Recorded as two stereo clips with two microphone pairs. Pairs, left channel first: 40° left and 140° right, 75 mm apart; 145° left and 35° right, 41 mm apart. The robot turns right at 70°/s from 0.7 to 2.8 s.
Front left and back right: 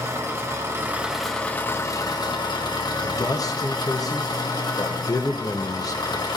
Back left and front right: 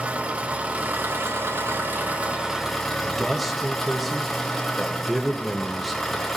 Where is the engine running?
90° right, 1.1 m; by 6.4 s 60° left, 1.1 m.